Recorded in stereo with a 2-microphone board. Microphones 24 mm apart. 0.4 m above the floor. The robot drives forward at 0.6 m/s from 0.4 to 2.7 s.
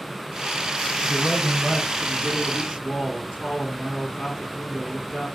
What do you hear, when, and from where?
1.0 s a man speaking: 15° left (ahead or behind), 2.5 m; by 5.3 s 10° left (ahead or behind), 3.5 m